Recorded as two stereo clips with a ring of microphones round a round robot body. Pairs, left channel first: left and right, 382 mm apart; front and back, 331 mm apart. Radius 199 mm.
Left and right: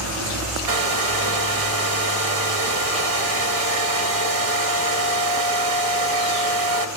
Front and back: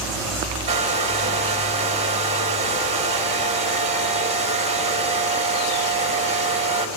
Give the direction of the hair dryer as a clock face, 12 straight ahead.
4 o'clock.